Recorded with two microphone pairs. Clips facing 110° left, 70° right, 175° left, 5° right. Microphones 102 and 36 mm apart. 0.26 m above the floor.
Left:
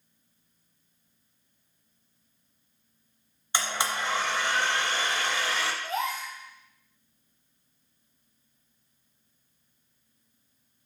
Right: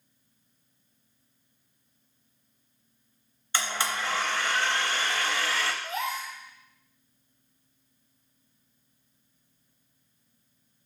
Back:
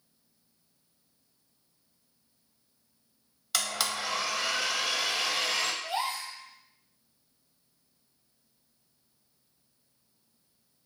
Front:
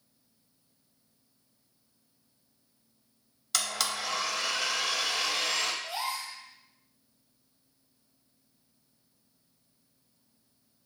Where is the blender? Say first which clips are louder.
Left 1 dB, even; 110° left, 0.7 m.